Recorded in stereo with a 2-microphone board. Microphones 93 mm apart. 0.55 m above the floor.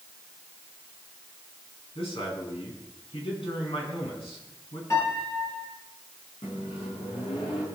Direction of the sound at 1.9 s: 70° left (ahead or behind).